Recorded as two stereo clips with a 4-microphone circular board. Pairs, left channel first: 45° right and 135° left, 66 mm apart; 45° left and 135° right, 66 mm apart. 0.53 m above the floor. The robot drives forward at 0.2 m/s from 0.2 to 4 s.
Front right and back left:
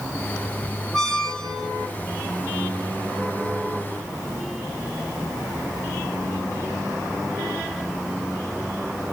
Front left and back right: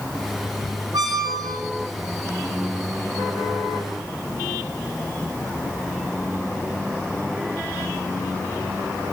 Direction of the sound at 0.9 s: 125° right.